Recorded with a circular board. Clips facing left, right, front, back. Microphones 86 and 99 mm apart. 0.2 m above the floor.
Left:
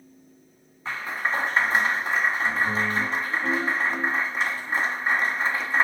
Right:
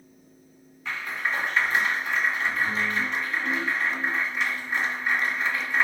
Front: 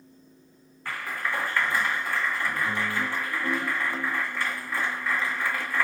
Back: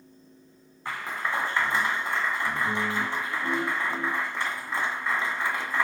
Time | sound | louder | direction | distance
0.8 | a clap | left 2 dB, back 1 dB | 125° left | 1.6 m